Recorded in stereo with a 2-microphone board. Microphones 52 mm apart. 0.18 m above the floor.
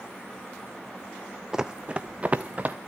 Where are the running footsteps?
10° right (ahead or behind), 0.6 m; by 2.8 s 30° right (ahead or behind), 1.4 m.